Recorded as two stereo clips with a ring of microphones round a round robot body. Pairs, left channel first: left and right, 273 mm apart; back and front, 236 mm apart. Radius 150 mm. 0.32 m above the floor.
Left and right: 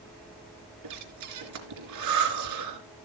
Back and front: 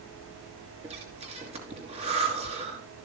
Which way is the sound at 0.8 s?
70° right.